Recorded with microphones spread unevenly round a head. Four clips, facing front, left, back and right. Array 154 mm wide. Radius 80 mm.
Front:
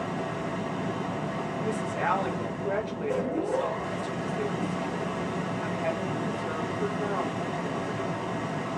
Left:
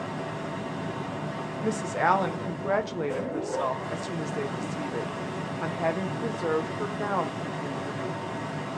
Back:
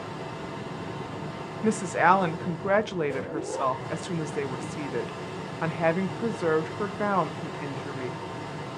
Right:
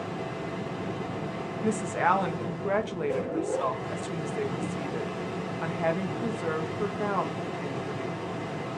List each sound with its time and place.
0.0 s a machine running: 30° left, 1.4 m
1.6 s a woman speaking: 155° left, 0.6 m